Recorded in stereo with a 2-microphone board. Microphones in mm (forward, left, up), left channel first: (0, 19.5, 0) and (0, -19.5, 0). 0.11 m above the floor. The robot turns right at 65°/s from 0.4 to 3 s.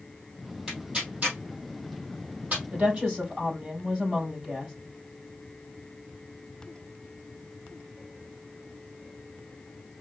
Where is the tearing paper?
10° right (ahead or behind), 2.5 m; by 2.6 s 40° right (ahead or behind), 2.5 m.